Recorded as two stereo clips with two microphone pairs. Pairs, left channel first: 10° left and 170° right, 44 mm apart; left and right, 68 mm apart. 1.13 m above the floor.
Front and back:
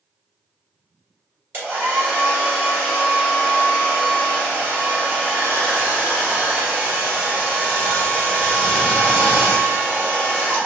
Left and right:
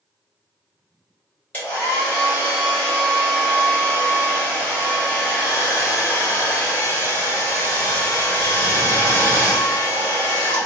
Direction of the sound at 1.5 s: 155° left.